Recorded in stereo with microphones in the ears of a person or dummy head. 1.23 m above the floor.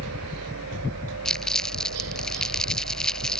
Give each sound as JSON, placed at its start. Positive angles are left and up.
{"t": 0.0, "sound": "a helicopter", "side_deg": -75}
{"t": 1.2, "sound": "crumpling", "side_deg": 5}